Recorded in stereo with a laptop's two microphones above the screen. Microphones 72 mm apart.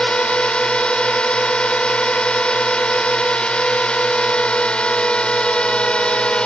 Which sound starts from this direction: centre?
A drone, at 0.0 s.